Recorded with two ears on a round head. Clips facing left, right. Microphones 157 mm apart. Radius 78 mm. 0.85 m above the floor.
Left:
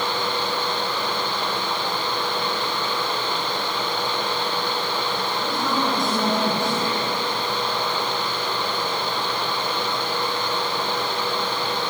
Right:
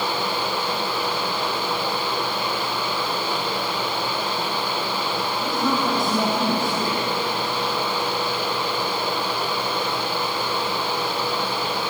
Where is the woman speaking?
Centre (ahead or behind), 6.5 m.